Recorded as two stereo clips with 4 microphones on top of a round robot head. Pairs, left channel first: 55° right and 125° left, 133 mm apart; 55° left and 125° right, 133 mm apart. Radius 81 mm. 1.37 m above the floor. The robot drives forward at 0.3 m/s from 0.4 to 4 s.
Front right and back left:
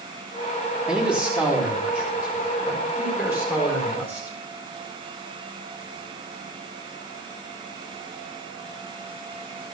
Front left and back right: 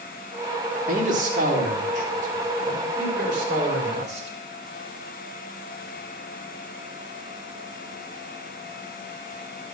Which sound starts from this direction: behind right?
A man speaking, at 0.9 s.